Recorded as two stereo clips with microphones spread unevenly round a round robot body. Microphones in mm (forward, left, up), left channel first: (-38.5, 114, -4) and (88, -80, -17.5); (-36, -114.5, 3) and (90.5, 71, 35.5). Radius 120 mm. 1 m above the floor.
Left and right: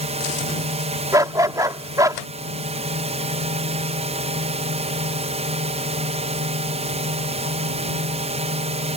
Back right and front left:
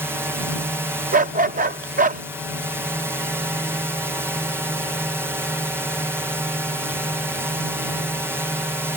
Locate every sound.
0.0 s a drone: 30° right
1.1 s a dog barking: 20° left